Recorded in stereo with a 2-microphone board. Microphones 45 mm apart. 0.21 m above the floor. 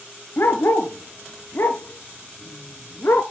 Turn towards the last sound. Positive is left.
turn(degrees=65)  # may be behind; listen again after turning